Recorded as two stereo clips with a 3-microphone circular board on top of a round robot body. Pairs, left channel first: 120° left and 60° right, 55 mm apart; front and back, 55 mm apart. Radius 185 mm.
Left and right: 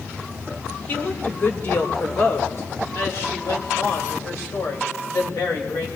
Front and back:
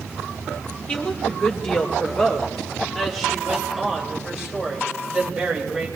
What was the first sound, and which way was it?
A woman speaking, 70° left.